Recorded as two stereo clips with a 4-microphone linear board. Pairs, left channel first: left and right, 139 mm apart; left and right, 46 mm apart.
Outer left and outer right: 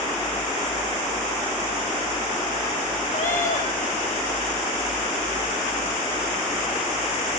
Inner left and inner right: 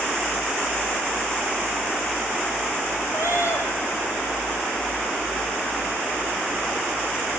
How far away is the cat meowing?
About 6 m.